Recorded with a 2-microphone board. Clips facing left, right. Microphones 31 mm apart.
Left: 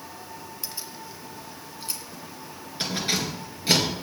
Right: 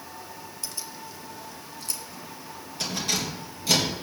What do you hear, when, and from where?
0.6 s keys jangling: 15° left (ahead or behind), 1.1 m; by 3.9 s 35° left (ahead or behind), 3.5 m